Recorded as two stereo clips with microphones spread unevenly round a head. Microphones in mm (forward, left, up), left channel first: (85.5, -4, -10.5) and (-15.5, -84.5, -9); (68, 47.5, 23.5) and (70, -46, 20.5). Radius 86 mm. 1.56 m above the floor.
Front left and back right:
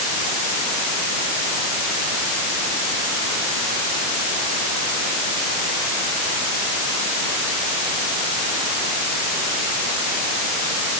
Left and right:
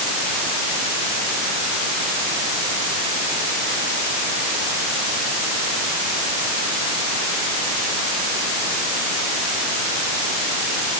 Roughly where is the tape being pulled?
No tape being pulled in this recording.